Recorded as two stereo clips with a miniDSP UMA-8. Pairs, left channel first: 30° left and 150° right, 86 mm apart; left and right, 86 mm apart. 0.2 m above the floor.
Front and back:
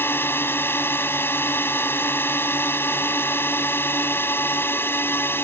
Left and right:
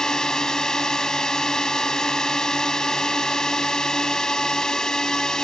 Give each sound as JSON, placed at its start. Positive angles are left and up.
{"t": 0.0, "sound": "a drone", "azimuth_deg": 15}